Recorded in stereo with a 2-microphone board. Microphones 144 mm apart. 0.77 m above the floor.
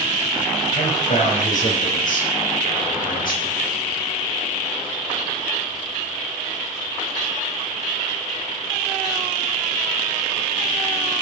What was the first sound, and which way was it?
A man speaking, 60° left (ahead or behind).